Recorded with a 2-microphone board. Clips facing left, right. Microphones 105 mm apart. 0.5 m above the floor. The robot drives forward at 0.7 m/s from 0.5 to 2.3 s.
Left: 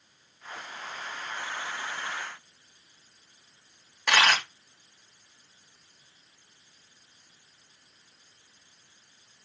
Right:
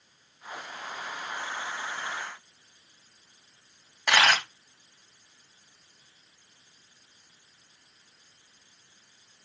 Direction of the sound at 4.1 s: 5° right (ahead or behind).